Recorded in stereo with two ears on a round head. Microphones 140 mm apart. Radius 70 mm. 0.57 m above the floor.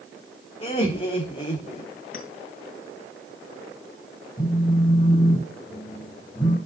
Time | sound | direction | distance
0.6 | laughter | 35° left (ahead or behind) | 1.2 m
2.1 | a clink | 60° left (ahead or behind) | 2.5 m
4.4 | a phone buzzing | 30° left (ahead or behind) | 3.5 m